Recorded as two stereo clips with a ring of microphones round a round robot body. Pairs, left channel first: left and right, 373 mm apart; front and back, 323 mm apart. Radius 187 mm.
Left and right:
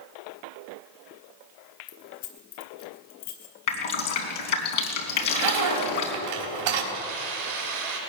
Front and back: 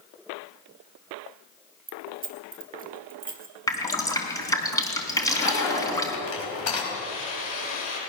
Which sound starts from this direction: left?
Dripping, at 3.7 s.